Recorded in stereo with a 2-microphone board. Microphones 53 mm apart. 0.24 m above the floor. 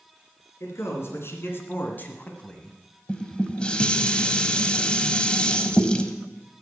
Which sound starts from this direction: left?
A man speaking, at 0.6 s.